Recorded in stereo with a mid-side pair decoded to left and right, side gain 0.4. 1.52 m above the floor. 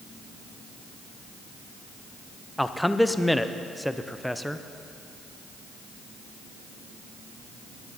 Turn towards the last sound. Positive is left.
turn(degrees=5)